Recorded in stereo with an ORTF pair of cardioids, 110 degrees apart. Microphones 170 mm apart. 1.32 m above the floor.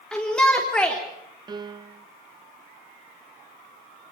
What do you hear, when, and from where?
0.1 s a shout: 5° left, 3.5 m
1.5 s a piano: 25° right, 1.1 m